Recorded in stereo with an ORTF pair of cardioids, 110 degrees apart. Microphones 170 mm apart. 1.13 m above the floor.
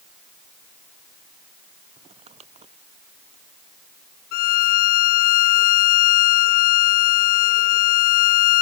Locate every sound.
2.0 s crumpling: 40° right
4.3 s a violin: 65° left